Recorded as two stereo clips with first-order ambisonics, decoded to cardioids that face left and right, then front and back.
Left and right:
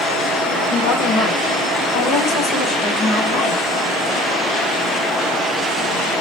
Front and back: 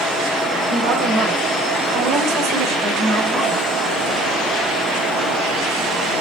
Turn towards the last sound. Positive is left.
turn(degrees=130)